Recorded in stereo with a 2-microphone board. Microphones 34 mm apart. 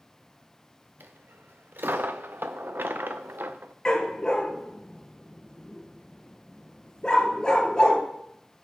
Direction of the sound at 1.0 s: 85° right.